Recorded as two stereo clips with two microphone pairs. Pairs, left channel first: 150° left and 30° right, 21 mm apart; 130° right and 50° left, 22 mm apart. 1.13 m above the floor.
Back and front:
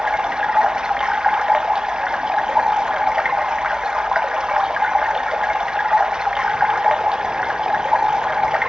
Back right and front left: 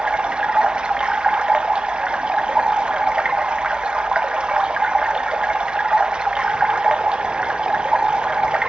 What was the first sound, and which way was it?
Running water, 15° left.